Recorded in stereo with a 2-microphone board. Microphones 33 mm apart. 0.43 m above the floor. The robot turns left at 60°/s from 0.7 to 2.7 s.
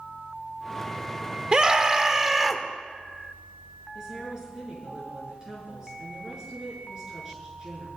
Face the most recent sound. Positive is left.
turn(degrees=-20)  # may be behind; listen again after turning